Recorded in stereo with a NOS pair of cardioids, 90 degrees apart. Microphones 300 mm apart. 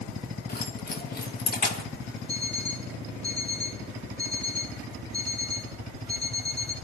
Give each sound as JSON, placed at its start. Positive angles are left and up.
{"t": 0.5, "sound": "keys jangling", "azimuth_deg": 30, "distance_m": 1.8}
{"t": 2.3, "sound": "an alarm clock", "azimuth_deg": 20, "distance_m": 3.0}